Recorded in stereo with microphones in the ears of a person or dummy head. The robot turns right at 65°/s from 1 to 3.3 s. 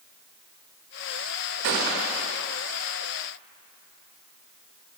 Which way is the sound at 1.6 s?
75° right.